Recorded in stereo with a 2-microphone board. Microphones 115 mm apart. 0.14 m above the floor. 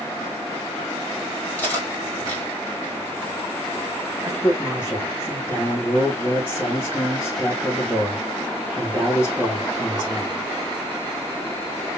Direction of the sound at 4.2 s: 20° left (ahead or behind).